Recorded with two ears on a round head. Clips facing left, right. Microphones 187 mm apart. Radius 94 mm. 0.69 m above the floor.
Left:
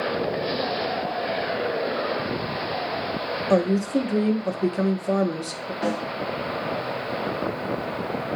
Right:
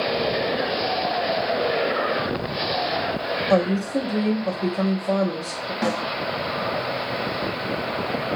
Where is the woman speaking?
20° left (ahead or behind), 0.8 m.